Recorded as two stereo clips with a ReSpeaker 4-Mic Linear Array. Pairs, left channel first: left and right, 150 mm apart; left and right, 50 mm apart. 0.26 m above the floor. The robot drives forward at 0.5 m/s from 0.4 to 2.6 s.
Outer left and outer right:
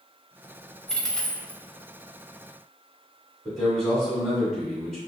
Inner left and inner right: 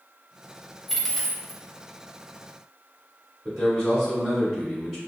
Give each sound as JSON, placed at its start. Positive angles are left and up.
{"t": 0.9, "sound": "a dropped coin", "side_deg": 5, "distance_m": 0.5}
{"t": 3.5, "sound": "a man speaking", "side_deg": 0, "distance_m": 1.7}